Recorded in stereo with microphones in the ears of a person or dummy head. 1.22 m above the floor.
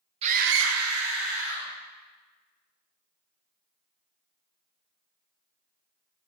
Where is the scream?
30° right (ahead or behind), 0.6 m; by 1.7 s 45° right (ahead or behind), 1.3 m.